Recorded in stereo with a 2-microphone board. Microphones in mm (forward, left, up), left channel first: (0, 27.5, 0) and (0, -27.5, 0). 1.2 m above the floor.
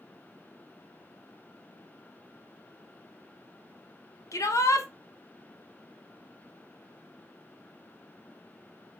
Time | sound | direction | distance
4.3 | a shout | 80° left | 0.8 m